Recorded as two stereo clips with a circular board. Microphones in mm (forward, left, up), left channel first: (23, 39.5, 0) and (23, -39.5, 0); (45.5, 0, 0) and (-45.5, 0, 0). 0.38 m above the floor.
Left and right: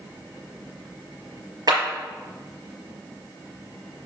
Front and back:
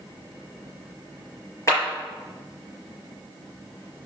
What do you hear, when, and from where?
1.7 s a clap: 55° right, 5 m